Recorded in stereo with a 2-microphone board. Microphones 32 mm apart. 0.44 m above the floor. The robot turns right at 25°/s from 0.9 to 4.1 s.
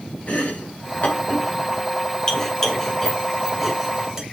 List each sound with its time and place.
0.3 s chopping: 50° left (ahead or behind), 2 m; by 4.2 s 15° right (ahead or behind), 2 m